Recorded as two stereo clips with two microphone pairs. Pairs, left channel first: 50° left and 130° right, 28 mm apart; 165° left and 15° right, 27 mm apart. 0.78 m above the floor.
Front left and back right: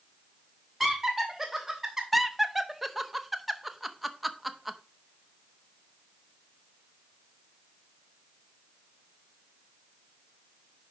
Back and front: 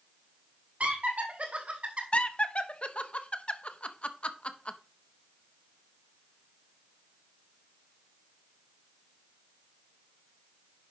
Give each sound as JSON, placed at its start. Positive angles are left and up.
{"t": 0.8, "sound": "laughter", "azimuth_deg": -35, "distance_m": 2.5}
{"t": 2.1, "sound": "laughter", "azimuth_deg": 150, "distance_m": 0.7}